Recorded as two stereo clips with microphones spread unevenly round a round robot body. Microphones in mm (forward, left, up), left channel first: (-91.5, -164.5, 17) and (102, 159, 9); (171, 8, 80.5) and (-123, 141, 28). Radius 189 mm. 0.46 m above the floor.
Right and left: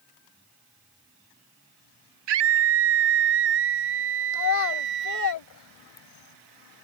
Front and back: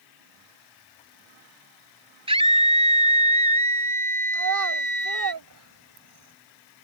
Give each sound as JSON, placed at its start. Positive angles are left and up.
{"t": 2.3, "sound": "a scream", "azimuth_deg": 80}
{"t": 4.3, "sound": "a child speaking", "azimuth_deg": -165}